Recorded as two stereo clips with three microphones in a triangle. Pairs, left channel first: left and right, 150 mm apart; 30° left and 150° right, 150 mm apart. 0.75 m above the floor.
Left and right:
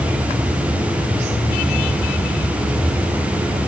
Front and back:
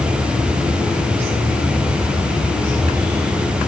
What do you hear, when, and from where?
Only background noise.